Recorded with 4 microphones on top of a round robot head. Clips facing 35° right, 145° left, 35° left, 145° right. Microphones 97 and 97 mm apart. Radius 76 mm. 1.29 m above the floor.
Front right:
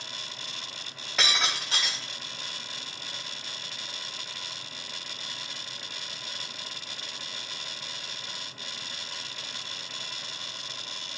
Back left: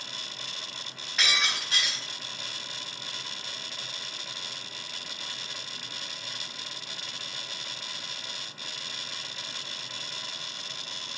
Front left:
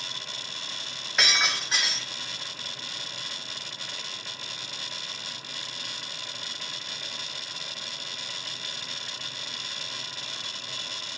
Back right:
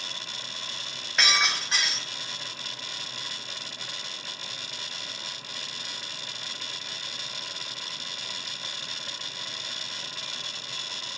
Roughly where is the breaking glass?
Ahead right.